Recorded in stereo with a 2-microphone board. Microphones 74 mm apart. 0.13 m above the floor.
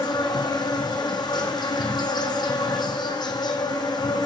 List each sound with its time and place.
0.0 s an insect: 70° left (ahead or behind), 1.0 m